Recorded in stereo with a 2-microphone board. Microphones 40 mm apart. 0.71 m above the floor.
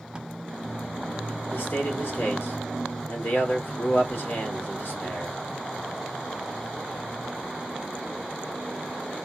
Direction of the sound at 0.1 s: 20° right (ahead or behind).